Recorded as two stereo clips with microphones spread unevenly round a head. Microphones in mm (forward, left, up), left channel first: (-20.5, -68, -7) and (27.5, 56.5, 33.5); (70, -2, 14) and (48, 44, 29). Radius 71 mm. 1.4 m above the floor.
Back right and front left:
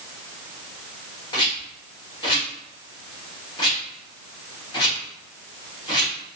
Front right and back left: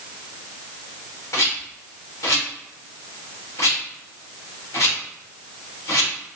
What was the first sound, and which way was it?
A rattle, 50° right.